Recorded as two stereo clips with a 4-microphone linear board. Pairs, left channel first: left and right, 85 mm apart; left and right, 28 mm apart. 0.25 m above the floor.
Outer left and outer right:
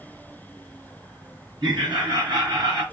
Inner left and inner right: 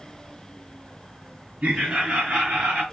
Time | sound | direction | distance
1.6 | laughter | 65° right (ahead or behind) | 2.5 m